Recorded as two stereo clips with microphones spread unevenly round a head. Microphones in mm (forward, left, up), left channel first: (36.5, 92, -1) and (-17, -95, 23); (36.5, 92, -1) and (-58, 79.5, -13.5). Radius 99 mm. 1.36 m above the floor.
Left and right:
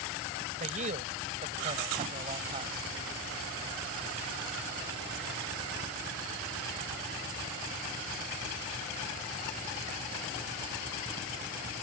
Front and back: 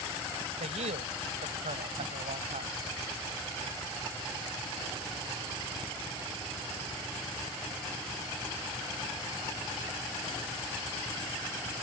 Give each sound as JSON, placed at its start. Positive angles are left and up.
{"t": 0.6, "sound": "a man speaking", "azimuth_deg": -160}